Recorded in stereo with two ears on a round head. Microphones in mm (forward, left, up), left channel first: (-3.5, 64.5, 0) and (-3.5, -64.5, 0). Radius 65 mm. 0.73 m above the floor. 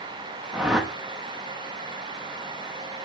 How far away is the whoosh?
About 1.0 m.